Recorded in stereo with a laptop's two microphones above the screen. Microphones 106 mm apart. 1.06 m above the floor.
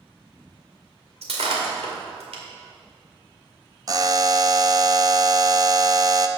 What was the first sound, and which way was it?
Breaking glass, 80° right.